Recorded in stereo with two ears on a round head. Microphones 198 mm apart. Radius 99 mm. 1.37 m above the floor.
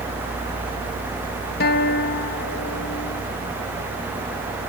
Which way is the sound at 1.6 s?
45° left (ahead or behind).